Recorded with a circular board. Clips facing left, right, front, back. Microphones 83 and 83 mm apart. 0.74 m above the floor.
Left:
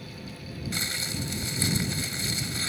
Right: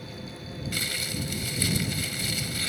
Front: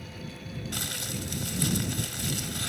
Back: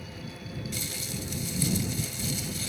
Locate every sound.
0.7 s crumpling: 25° left